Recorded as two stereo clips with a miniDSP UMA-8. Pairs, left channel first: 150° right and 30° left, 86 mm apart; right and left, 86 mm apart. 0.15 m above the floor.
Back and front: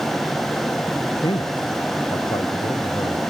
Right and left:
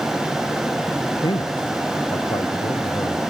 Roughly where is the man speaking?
Behind right.